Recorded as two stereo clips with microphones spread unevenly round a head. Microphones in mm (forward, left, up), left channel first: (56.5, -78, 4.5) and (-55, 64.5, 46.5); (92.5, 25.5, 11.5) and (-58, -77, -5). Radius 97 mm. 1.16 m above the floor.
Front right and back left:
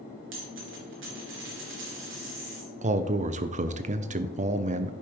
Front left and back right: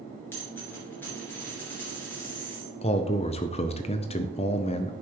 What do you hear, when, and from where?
0.3 s a dropped coin: 115° left, 3.5 m
2.8 s a man speaking: 80° left, 0.6 m